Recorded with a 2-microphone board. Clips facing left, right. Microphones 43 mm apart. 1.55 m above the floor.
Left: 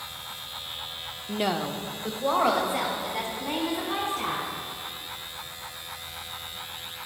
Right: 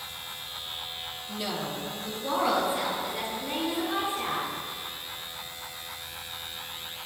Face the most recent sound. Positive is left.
turn(degrees=80)